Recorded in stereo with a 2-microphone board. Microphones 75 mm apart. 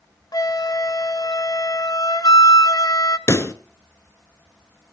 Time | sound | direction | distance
0.3 | a flute | 60° left (ahead or behind) | 0.8 m
3.3 | a pop | 45° left (ahead or behind) | 0.9 m